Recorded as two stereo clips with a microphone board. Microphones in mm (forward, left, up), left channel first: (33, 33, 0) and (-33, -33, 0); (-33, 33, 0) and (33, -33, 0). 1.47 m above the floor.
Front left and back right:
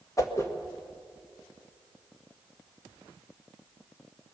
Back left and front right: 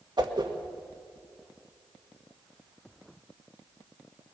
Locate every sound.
0.2 s a whoosh: 10° right, 1.5 m